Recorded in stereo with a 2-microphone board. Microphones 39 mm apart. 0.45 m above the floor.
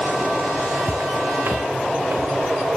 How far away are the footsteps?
About 1.4 m.